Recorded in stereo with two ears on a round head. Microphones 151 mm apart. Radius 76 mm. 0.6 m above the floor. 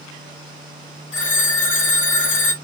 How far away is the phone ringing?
About 2.5 m.